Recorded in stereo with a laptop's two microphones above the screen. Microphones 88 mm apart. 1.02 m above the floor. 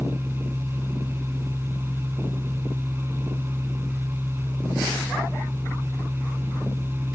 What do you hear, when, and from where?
0.0 s a machine running: 25° right (ahead or behind)